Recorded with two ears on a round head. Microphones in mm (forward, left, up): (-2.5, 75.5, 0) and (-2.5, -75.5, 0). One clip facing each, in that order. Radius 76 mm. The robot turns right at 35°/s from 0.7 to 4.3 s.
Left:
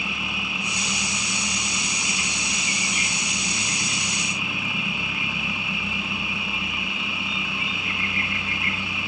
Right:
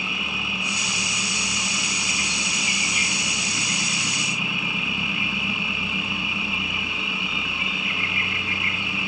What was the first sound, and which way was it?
An insect, 140° left.